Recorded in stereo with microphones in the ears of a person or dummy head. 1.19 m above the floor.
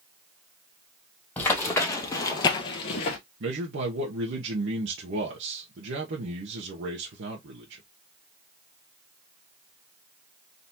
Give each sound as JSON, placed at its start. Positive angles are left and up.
{"t": 1.4, "sound": "running footsteps", "side_deg": 15, "distance_m": 1.9}
{"t": 3.4, "sound": "a man speaking", "side_deg": -60, "distance_m": 1.2}